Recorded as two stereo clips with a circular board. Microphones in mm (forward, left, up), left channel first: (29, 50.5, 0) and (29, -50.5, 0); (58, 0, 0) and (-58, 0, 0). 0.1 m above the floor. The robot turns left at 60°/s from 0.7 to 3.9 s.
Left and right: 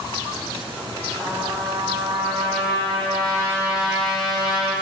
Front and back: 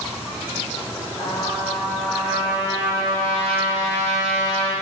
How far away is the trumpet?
About 2.5 m.